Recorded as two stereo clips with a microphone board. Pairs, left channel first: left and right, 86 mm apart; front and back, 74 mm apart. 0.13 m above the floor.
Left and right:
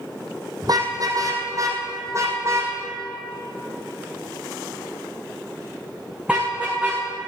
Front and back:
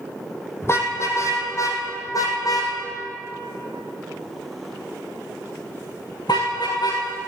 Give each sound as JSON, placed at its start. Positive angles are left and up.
{"t": 0.6, "sound": "a car horn", "azimuth_deg": -55, "distance_m": 2.5}